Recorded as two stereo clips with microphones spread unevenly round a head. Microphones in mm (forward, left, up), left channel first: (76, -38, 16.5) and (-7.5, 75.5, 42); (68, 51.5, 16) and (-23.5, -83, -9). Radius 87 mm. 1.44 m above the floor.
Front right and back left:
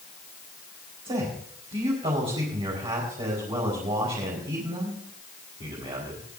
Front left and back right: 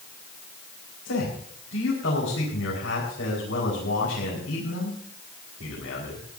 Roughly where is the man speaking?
Left.